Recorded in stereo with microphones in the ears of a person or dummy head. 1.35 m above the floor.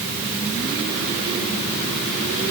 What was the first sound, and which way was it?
Only background noise.